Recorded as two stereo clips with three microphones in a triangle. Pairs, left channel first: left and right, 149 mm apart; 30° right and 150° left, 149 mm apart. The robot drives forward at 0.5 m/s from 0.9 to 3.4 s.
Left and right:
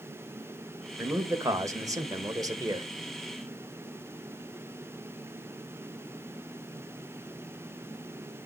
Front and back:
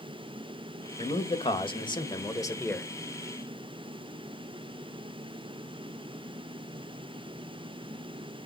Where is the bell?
I don't hear a bell.